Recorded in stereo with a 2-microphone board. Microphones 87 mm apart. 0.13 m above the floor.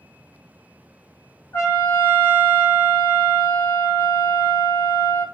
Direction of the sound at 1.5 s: 30° left (ahead or behind).